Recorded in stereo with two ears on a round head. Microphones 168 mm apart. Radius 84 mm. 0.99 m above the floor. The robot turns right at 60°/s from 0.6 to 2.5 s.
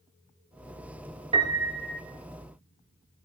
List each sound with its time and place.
1.3 s a piano: 30° right, 1.6 m; by 2.0 s 15° left, 1.6 m